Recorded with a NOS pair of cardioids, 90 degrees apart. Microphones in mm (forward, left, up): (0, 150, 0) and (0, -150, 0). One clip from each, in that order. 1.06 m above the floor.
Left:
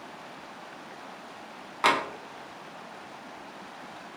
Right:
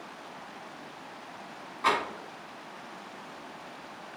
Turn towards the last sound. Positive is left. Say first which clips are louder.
# left 3 dB
turn(degrees=65)